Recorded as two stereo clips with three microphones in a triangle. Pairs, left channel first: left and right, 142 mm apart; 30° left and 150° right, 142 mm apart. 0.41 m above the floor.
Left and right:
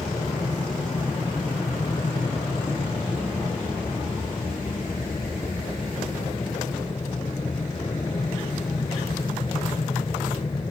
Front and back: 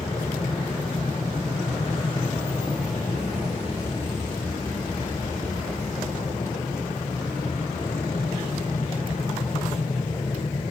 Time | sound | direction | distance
0.0 | an aircraft | 55° left | ?